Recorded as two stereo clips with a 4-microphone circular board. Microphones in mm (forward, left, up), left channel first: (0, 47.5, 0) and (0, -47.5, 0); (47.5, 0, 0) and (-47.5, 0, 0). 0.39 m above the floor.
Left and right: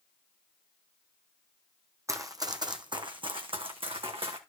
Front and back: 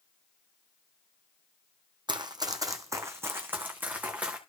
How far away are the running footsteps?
About 1.2 m.